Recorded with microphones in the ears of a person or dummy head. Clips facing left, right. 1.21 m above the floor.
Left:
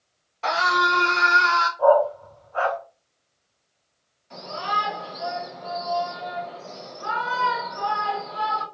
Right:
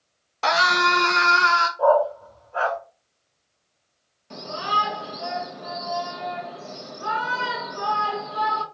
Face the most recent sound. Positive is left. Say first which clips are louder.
# right 1 dB
turn(degrees=-60)  # may be behind; listen again after turning